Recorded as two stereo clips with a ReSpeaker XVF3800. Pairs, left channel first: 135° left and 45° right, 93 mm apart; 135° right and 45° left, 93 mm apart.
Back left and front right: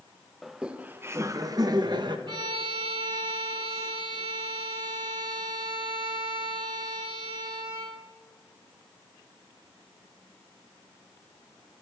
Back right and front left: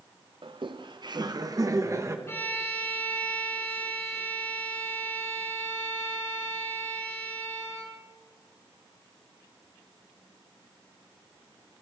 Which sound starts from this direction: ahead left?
Laughter, at 0.4 s.